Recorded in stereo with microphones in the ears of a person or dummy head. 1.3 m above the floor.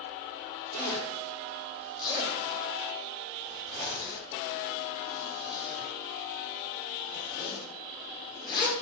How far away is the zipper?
About 1.3 m.